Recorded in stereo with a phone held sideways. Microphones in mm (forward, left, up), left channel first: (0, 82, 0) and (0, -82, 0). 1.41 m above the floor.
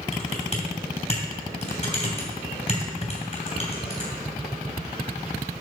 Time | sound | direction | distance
0.1 | typing on a keyboard | 40° left (ahead or behind) | 2.5 m